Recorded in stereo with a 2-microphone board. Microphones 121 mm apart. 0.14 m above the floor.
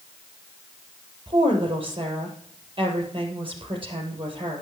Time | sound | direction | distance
1.3 | a woman speaking | 45° right (ahead or behind) | 3.5 m